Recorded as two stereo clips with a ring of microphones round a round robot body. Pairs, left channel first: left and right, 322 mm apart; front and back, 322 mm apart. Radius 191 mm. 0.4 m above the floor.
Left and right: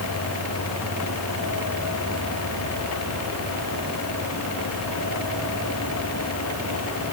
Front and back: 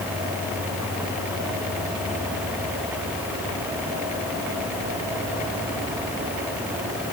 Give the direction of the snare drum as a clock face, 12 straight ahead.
No snare drum in this recording.